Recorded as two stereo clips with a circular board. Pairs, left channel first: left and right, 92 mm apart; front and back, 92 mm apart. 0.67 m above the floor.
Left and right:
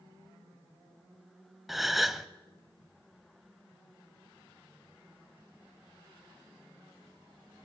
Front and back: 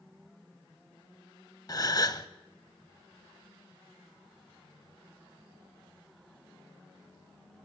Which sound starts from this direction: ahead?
A gasp, at 1.7 s.